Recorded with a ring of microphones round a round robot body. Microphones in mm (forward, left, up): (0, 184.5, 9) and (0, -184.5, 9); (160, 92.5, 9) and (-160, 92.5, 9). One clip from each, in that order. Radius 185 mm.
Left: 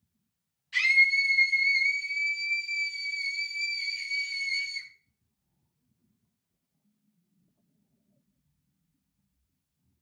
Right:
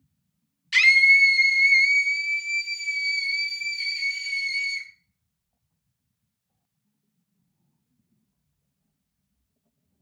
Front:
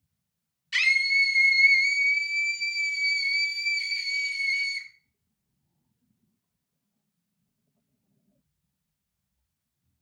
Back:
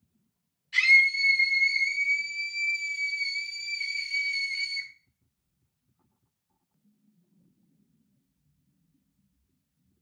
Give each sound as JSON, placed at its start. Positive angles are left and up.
{"t": 0.7, "sound": "a scream", "azimuth_deg": -50, "distance_m": 1.5}